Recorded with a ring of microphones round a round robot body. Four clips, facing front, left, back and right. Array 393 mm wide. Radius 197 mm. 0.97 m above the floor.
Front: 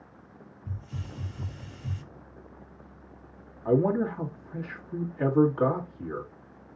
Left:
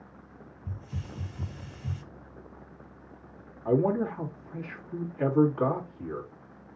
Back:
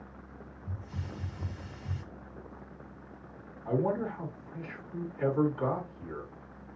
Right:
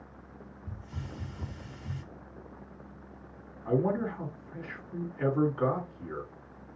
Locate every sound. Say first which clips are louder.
0.7 s a hiss: left 3 dB, front 2 dB; 45° left, 3 m
3.6 s a man speaking: left 3 dB, front 6 dB; 35° left, 2.5 m